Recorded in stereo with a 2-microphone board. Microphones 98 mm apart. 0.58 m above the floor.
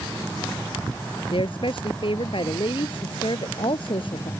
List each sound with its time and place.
1.3 s a woman speaking: 55° left (ahead or behind)